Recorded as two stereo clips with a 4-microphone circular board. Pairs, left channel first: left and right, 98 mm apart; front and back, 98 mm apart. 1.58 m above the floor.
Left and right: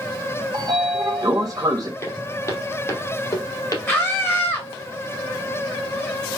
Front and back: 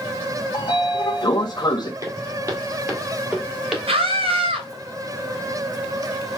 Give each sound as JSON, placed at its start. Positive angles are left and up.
{"t": 0.5, "sound": "a sliding door", "azimuth_deg": -45, "distance_m": 1.0}
{"t": 2.0, "sound": "footsteps", "azimuth_deg": 140, "distance_m": 2.0}
{"t": 3.9, "sound": "a scream", "azimuth_deg": 160, "distance_m": 2.0}